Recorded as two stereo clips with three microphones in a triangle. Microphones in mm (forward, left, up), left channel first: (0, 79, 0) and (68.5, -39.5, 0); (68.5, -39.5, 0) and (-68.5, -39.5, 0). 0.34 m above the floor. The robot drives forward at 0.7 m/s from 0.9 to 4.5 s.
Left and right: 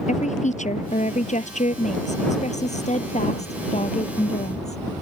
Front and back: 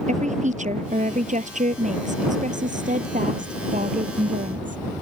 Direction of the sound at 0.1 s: 150° left.